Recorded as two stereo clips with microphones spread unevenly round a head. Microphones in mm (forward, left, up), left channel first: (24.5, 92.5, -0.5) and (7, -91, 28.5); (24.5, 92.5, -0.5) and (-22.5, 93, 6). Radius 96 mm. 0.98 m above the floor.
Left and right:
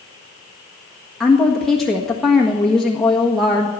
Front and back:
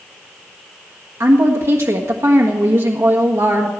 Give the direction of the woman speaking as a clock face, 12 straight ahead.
6 o'clock.